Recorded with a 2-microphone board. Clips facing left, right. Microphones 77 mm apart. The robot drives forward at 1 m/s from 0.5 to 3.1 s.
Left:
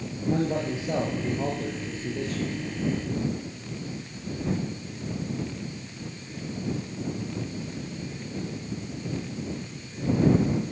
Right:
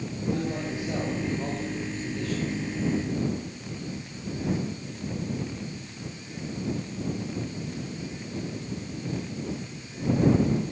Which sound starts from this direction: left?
A man speaking, at 0.3 s.